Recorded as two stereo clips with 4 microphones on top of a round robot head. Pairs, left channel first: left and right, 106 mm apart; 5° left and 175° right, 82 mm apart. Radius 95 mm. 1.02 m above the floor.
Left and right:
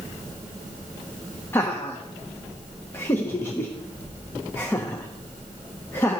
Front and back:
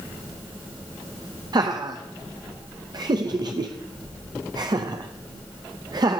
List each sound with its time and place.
1.5 s laughter: 160° left, 0.7 m